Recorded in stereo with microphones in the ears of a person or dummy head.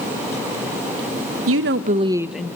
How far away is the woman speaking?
About 0.9 m.